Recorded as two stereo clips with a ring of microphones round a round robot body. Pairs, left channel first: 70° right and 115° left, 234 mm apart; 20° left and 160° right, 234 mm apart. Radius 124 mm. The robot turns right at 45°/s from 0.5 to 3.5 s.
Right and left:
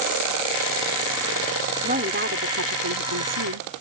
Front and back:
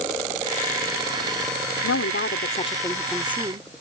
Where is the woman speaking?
55° left; by 3.7 s 130° left.